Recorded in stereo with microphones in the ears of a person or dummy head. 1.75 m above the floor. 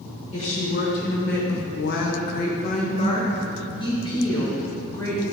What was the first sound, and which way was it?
A woman speaking, 35° left (ahead or behind).